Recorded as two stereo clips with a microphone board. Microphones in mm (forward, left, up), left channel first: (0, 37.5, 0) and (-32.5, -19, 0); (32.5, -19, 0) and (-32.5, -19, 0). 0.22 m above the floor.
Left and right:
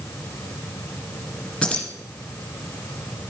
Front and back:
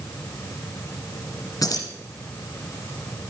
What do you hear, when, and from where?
1.6 s keys jangling: 15° right, 1.9 m